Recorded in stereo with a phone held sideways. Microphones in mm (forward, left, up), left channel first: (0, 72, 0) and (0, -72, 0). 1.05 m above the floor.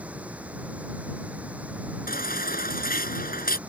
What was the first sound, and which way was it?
Running water, 10° right (ahead or behind).